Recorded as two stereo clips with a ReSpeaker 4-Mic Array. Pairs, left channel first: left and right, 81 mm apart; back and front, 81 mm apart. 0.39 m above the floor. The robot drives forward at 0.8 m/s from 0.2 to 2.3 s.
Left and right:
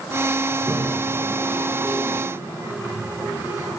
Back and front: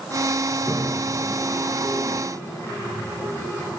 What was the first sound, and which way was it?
A toilet flushing, 125° right.